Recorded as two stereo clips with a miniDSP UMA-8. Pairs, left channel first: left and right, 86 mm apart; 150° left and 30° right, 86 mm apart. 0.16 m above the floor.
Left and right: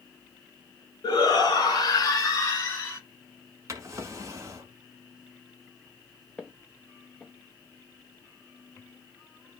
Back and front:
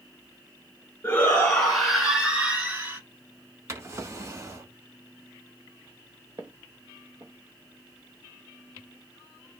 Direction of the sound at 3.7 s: 60° right.